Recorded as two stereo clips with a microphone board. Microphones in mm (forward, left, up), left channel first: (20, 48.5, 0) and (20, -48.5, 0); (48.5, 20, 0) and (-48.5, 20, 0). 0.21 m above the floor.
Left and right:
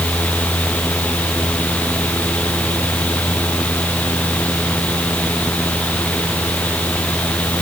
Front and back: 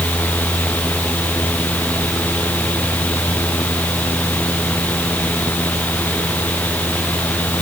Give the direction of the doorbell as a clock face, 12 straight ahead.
I don't hear a doorbell.